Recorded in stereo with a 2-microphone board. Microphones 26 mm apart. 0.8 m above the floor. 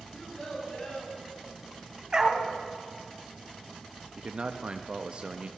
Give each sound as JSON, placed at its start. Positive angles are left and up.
{"t": 0.1, "sound": "a child speaking", "side_deg": 35, "distance_m": 5.0}
{"t": 2.1, "sound": "a dog barking", "side_deg": -30, "distance_m": 1.2}
{"t": 4.2, "sound": "a man speaking", "side_deg": -40, "distance_m": 0.6}